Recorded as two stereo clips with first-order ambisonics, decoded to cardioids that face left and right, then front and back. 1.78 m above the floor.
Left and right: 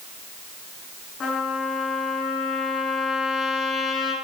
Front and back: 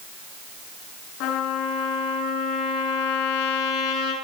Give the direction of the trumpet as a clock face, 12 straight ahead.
11 o'clock.